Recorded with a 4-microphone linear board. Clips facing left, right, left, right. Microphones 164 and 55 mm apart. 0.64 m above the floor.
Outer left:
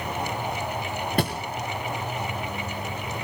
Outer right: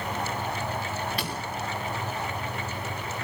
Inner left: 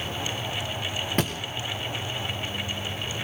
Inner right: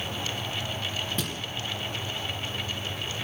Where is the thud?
50° left (ahead or behind), 2.5 m.